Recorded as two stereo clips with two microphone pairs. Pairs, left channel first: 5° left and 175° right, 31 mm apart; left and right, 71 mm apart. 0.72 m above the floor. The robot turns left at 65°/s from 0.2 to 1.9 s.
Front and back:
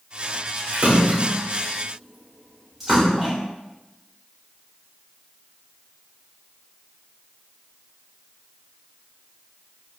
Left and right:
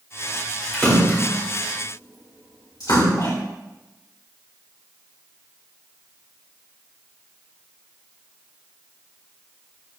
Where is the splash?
Straight behind, 3 m; by 3.3 s 100° left, 3 m.